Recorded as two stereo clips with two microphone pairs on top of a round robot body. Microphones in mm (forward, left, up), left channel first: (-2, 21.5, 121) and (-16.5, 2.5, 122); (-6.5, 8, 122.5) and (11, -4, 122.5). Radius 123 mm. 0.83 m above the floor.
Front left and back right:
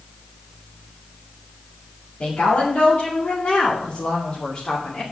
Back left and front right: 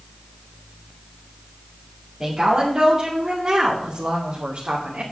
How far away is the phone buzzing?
No phone buzzing in this recording.